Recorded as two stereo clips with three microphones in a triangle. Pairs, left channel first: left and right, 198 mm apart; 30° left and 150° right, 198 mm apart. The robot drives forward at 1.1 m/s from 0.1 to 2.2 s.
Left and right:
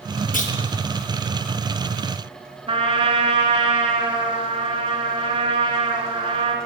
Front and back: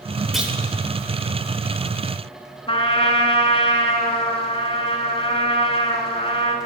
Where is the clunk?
120° left, 0.7 m; by 0.6 s 140° left, 0.8 m.